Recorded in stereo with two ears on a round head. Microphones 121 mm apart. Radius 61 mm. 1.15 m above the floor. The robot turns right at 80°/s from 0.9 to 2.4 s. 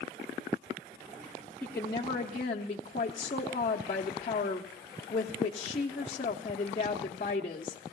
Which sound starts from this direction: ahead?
A woman speaking, at 1.6 s.